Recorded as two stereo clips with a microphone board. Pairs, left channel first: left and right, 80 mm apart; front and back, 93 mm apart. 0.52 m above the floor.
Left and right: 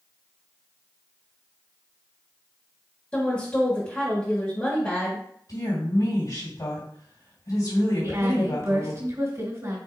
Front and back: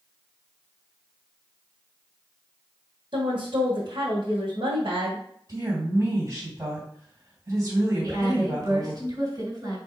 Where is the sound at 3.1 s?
155° left, 1.6 m.